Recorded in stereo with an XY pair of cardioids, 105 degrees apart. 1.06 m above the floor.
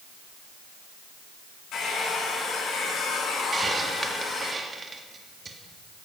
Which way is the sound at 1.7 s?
70° left.